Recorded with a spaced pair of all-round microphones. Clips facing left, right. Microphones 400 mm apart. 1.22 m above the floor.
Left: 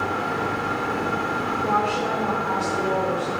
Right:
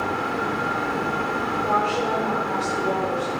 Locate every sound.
1.6 s a woman speaking: 60° left (ahead or behind), 4.5 m; by 3.4 s 85° left, 4.5 m